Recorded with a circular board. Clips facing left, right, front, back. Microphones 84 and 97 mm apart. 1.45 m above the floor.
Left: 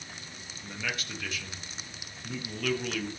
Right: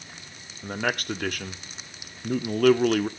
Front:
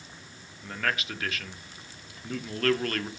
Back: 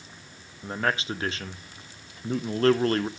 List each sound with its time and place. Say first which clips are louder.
0.6 s a man speaking: right 9 dB, back 4 dB; 120° right, 1.0 m